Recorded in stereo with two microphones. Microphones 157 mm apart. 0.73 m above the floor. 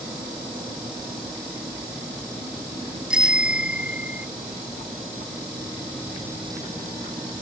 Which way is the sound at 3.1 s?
5° right (ahead or behind).